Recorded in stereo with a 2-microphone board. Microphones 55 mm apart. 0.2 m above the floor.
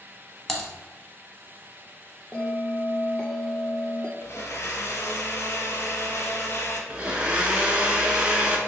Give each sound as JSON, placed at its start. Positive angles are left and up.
{"t": 0.5, "sound": "typing on a keyboard", "side_deg": 5, "distance_m": 0.7}
{"t": 2.3, "sound": "a bell", "side_deg": 20, "distance_m": 0.7}
{"t": 4.2, "sound": "a blender", "side_deg": 55, "distance_m": 0.7}
{"t": 6.9, "sound": "a blender", "side_deg": -20, "distance_m": 0.8}